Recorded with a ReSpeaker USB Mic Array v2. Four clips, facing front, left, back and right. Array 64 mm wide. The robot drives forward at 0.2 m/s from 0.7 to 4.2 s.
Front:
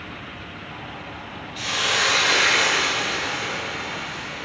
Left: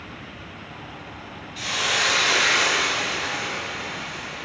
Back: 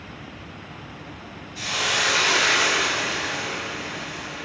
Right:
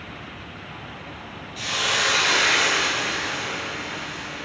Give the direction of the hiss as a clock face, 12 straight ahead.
12 o'clock.